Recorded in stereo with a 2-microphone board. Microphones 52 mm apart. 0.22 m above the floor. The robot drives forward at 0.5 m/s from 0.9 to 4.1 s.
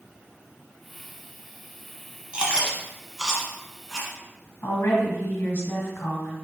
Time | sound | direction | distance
2.3 | chewing | 20° right (ahead or behind) | 0.8 m
4.6 | a woman speaking | 50° left (ahead or behind) | 1.7 m